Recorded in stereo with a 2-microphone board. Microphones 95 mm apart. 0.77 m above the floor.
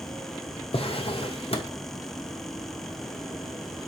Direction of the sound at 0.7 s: 85° left.